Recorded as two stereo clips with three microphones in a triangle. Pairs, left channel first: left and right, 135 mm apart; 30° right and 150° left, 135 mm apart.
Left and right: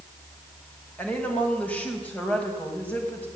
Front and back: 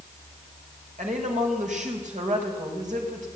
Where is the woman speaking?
170° left, 5.5 m.